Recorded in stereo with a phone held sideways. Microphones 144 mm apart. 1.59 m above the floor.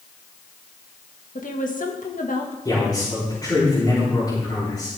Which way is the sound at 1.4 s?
70° left (ahead or behind).